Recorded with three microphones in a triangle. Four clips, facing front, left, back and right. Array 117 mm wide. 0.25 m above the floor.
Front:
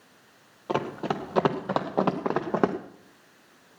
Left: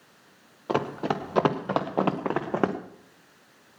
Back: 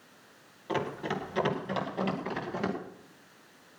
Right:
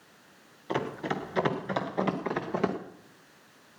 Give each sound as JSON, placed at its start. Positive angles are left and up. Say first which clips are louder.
{"t": 0.7, "sound": "running footsteps", "louder": "left 4 dB, front 4 dB", "azimuth_deg": 60, "distance_m": 2.5}